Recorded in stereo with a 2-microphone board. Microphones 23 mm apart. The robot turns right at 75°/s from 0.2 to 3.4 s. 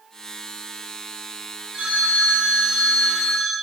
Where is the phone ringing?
125° right, 2.5 m; by 3.5 s straight ahead, 2.5 m.